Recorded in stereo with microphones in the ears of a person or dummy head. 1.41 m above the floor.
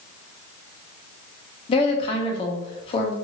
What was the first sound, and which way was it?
A woman speaking, 30° left (ahead or behind).